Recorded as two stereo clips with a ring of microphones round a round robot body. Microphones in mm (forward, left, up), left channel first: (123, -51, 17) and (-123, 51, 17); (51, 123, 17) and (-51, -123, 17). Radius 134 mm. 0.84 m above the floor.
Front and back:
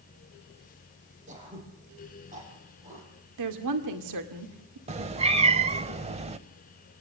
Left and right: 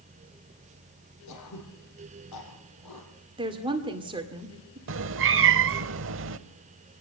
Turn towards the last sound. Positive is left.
turn(degrees=-140)